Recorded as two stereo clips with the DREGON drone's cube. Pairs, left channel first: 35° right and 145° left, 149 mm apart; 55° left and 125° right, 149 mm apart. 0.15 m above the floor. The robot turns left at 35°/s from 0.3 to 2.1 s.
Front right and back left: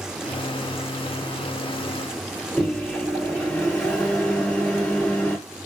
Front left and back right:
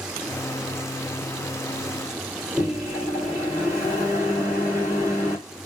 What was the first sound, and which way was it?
A microwave, 100° right.